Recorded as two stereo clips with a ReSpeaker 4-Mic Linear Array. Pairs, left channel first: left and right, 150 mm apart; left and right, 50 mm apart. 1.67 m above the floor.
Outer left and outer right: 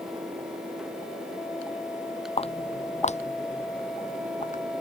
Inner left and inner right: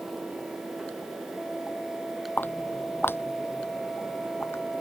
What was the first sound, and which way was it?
Footsteps, 40° left (ahead or behind).